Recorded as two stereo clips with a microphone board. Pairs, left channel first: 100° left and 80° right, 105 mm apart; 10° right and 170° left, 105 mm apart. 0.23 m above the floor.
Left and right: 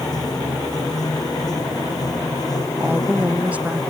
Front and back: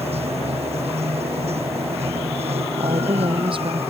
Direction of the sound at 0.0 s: 155° left.